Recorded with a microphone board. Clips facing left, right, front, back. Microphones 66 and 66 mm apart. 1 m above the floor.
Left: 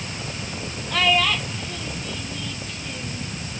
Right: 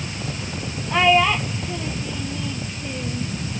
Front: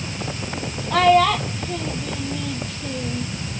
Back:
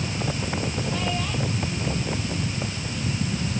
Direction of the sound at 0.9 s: 20° right.